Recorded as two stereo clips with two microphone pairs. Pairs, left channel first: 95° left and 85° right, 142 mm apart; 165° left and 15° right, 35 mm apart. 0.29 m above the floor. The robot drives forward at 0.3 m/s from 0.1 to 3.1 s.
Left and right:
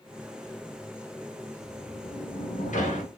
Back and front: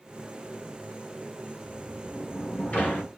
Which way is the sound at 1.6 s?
100° left.